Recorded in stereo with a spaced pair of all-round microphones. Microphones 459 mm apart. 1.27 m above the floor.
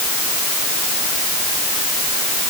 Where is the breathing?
I don't hear breathing.